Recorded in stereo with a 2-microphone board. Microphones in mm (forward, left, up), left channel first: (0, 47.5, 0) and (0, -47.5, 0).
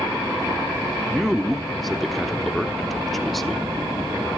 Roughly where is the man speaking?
Centre.